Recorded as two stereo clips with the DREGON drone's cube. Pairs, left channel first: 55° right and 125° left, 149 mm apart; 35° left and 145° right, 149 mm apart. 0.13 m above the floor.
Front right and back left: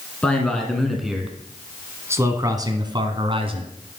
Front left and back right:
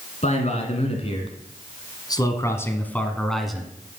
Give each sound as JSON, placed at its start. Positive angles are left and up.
{"t": 0.2, "sound": "a man speaking", "azimuth_deg": 25, "distance_m": 2.0}